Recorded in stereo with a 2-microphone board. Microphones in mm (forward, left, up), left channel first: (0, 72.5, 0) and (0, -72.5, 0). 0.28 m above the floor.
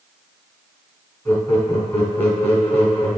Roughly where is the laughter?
Centre.